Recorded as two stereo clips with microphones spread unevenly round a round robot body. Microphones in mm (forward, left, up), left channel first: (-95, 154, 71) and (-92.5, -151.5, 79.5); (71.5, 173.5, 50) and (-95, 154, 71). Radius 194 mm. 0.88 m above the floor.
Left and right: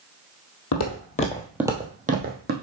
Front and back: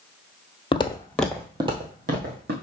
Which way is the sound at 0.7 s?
60° left.